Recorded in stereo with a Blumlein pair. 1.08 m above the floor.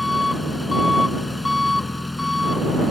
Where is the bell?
I don't hear a bell.